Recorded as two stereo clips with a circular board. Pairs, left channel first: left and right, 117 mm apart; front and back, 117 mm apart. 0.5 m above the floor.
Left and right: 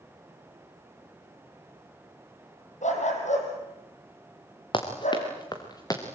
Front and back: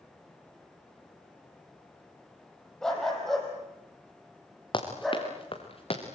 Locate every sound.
2.8 s a dog barking: 85° left, 5 m; by 5.3 s 90° left, 6.5 m
4.7 s running footsteps: 45° left, 4 m; by 6.0 s 30° left, 3.5 m